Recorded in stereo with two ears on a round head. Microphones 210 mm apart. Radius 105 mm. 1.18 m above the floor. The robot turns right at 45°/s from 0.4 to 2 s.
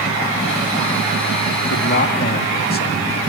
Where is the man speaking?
60° left (ahead or behind), 2 m; by 3.2 s 45° left (ahead or behind), 2 m.